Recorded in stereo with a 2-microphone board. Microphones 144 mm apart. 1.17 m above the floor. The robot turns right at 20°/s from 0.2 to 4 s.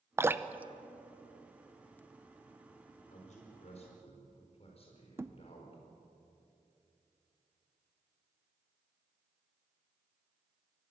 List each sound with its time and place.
0.2 s dripping: 15° right (ahead or behind), 0.6 m; by 2.0 s 15° left (ahead or behind), 0.6 m
3.1 s a man speaking: 65° left (ahead or behind), 4.5 m; by 5.8 s 45° left (ahead or behind), 4.5 m
5.2 s a thud: 20° right (ahead or behind), 0.8 m